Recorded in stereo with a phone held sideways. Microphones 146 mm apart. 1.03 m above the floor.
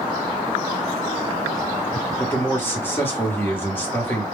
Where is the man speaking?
15° left (ahead or behind), 1.1 m.